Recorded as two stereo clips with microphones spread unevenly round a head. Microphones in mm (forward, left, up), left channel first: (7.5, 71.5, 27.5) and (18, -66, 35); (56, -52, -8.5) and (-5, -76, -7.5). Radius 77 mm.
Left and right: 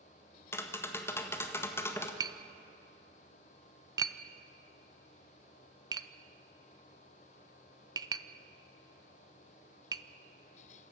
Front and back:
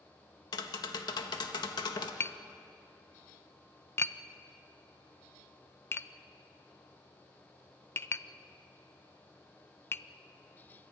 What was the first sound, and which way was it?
Tapping, 20° left.